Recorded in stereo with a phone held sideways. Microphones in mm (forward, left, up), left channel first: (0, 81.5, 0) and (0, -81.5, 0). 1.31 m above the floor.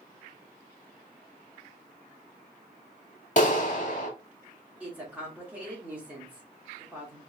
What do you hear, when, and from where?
3.4 s a clap: 50° left (ahead or behind), 1.9 m
4.8 s a woman speaking: 10° right (ahead or behind), 2 m